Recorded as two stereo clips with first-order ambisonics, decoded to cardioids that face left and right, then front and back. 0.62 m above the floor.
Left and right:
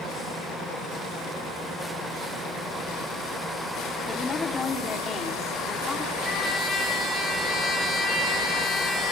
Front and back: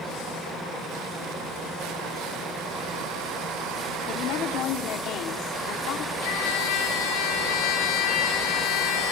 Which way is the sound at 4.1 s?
25° left.